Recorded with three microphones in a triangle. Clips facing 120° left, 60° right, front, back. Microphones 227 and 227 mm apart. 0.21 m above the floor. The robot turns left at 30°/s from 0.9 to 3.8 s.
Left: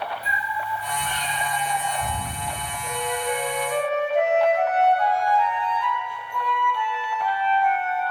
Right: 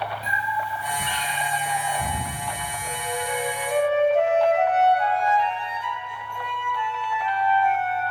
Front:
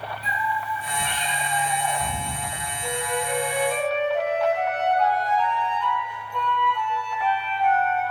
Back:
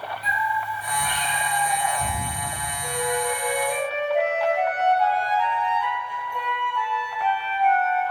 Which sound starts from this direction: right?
A flute, at 2.8 s.